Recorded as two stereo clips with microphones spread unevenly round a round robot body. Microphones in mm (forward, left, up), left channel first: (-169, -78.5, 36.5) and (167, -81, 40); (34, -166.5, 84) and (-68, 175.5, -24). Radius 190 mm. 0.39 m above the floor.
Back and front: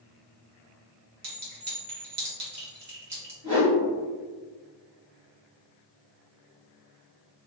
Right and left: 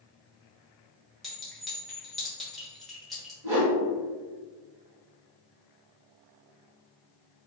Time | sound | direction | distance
1.2 | a clink | 30° left | 1.2 m
3.4 | a whoosh | 50° left | 1.6 m